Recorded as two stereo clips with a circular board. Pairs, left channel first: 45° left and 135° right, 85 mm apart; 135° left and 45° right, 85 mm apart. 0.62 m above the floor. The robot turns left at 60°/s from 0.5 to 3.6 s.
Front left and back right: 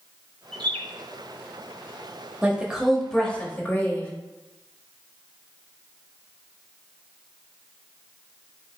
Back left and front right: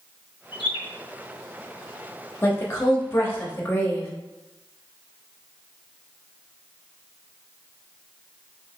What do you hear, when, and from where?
0.5 s a bird: 130° left, 1.0 m; by 0.8 s 110° left, 1.0 m
2.4 s a woman speaking: 170° left, 0.9 m; by 4.1 s 95° left, 0.9 m